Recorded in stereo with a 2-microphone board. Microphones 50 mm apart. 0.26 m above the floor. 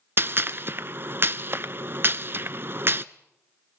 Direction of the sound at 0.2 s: 45° right (ahead or behind).